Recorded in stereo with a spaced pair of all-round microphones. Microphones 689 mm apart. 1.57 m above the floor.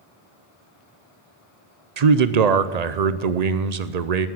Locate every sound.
2.0 s a man speaking: 70° right (ahead or behind), 0.8 m